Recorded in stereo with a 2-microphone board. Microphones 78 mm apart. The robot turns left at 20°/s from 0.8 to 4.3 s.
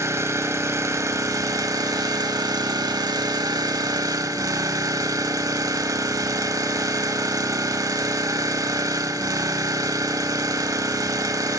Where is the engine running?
45° right, 0.7 m; by 11.6 s 115° right, 0.7 m.